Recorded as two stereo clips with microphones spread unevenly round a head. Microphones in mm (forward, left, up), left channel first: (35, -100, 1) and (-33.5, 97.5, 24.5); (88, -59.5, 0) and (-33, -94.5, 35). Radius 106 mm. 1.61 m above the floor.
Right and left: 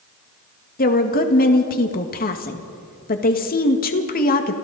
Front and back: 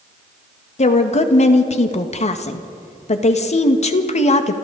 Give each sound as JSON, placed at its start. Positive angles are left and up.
{"t": 0.8, "sound": "a woman speaking", "azimuth_deg": -20, "distance_m": 1.8}